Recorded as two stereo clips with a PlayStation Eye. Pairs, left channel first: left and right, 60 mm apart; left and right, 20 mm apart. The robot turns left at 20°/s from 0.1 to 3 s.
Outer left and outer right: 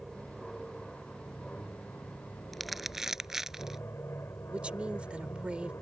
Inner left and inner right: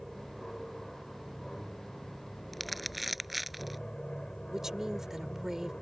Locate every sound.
0.0 s an aircraft: 175° right; by 5.8 s 130° left
2.5 s crumpling: centre (ahead or behind); by 3.8 s 5° right (ahead or behind)
4.5 s a woman speaking: 20° right (ahead or behind)